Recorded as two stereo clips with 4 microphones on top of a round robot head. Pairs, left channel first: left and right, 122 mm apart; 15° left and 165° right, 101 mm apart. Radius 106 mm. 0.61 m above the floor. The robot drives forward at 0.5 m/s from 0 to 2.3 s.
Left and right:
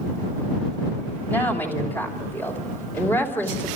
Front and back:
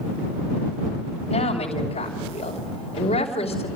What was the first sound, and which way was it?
A woman speaking, 15° left.